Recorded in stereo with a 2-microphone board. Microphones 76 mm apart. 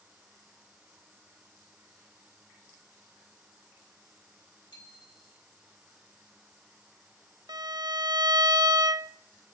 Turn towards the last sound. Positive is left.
turn(degrees=-65)  # may be behind; listen again after turning